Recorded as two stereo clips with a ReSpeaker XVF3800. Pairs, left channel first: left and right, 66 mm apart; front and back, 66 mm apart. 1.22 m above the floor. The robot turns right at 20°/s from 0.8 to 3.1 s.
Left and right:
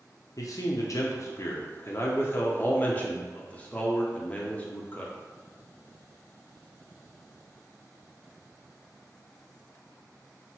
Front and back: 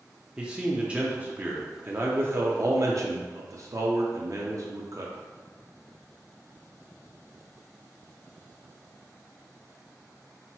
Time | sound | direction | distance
0.4 | a man speaking | 110° left | 0.5 m